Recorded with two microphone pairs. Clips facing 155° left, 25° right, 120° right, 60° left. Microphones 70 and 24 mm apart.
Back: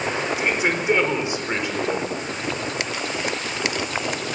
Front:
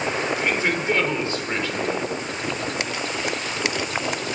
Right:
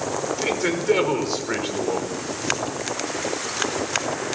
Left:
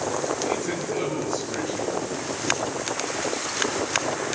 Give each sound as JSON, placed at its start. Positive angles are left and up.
{"t": 0.4, "sound": "a man speaking", "azimuth_deg": -130, "distance_m": 5.0}